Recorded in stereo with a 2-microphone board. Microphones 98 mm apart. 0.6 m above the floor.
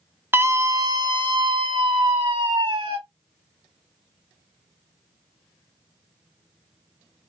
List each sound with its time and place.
0.3 s a scream: 25° right (ahead or behind), 0.8 m; by 3.0 s 65° right (ahead or behind), 1.8 m